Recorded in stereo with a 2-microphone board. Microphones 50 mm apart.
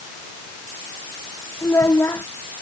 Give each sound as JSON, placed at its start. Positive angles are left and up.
{"t": 1.6, "sound": "a child speaking", "side_deg": 80}